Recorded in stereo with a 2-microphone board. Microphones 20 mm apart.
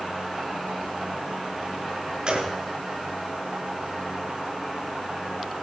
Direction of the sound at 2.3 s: 40° right (ahead or behind).